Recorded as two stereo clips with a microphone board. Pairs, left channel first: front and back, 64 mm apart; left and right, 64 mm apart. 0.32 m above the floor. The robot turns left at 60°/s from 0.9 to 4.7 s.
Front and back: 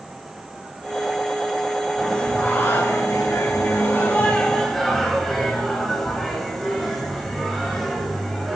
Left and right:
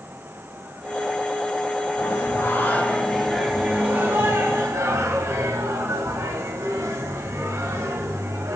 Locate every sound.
2.0 s singing: 80° left, 1.6 m; by 8.6 s 85° right, 1.6 m